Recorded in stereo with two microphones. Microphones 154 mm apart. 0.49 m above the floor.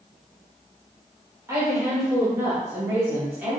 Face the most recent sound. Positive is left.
turn(degrees=-10)  # may be behind; listen again after turning